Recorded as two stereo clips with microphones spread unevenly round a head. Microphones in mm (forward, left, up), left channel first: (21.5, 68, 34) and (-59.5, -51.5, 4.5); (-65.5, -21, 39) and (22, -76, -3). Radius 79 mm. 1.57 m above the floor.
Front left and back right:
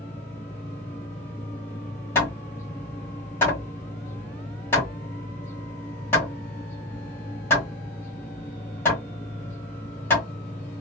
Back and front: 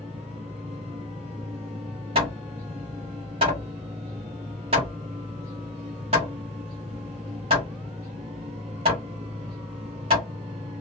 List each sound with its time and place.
0.0 s a machine running: 25° right, 1.0 m
2.1 s hammering: 20° left, 1.1 m